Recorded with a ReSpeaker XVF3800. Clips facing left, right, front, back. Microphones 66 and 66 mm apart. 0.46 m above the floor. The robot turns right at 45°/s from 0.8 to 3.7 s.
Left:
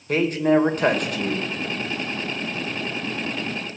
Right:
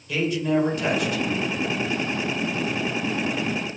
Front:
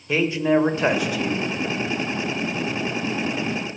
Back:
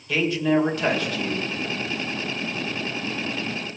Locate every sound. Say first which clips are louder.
0.1 s a man speaking: left 4 dB, front 2 dB; 60° left, 1.7 m; by 1.5 s 90° left, 1.7 m